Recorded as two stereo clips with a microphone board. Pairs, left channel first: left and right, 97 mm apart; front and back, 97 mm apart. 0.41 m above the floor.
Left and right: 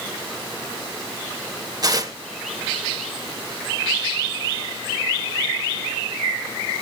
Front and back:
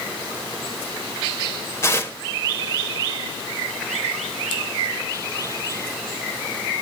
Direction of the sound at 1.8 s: 55° right.